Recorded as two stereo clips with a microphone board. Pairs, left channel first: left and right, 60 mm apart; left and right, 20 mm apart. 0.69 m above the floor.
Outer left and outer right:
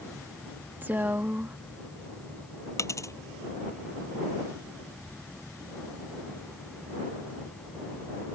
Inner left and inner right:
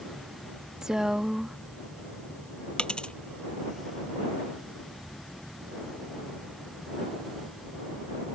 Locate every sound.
0.8 s a woman speaking: 30° right (ahead or behind)
2.8 s a dropped coin: 55° left (ahead or behind)